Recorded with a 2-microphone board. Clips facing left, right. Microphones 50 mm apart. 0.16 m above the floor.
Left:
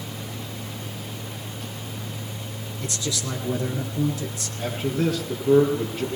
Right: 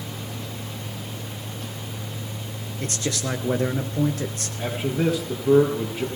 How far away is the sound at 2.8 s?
About 2 m.